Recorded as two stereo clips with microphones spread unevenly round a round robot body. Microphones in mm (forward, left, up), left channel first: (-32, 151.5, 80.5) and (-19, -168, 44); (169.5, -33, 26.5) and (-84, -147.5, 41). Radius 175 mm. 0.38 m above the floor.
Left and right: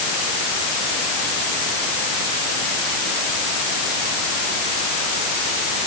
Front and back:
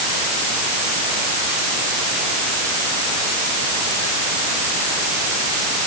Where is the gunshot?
No gunshot in this recording.